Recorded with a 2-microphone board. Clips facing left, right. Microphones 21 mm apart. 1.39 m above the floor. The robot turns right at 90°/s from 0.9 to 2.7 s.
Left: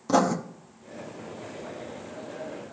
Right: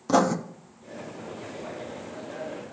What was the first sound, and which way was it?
Writing, 5° right (ahead or behind).